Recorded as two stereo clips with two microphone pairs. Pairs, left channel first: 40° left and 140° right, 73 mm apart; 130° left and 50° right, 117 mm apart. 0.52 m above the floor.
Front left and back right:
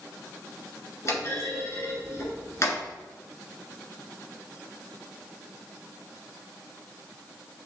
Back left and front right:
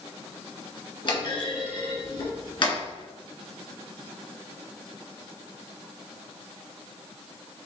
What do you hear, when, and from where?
1.1 s a clunk: 85° left, 1.6 m